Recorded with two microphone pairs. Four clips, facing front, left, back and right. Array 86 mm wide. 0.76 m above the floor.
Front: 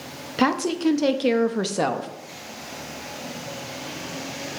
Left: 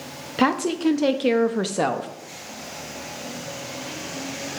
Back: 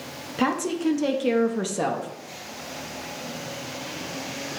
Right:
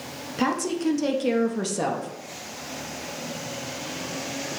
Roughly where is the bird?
I don't hear a bird.